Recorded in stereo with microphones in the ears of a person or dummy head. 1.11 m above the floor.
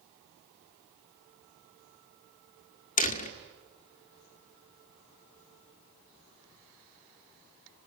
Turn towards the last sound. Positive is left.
turn(degrees=45)  # may be behind; listen again after turning